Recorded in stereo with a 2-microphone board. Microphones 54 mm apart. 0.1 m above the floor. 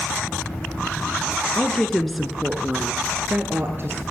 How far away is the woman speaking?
About 1.1 m.